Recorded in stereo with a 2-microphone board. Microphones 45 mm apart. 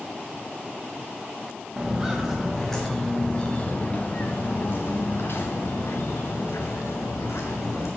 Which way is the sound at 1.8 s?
10° right (ahead or behind).